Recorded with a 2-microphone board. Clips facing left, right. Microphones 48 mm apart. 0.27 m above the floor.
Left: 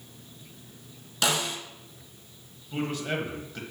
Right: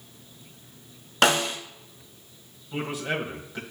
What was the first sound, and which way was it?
A snare drum, 50° right (ahead or behind).